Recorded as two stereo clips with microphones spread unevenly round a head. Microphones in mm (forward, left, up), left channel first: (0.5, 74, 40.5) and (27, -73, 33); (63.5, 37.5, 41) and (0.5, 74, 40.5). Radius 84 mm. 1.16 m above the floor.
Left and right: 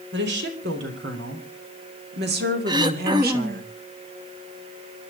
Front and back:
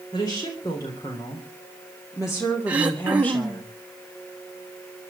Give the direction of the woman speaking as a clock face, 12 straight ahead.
3 o'clock.